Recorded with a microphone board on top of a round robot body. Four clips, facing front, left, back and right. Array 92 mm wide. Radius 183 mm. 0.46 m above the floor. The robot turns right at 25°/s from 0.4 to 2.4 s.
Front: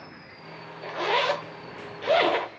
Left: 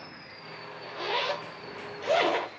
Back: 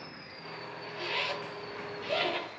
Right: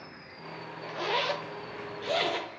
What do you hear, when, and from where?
0.8 s a zipper: 10° right, 0.8 m; by 2.5 s 30° left, 0.8 m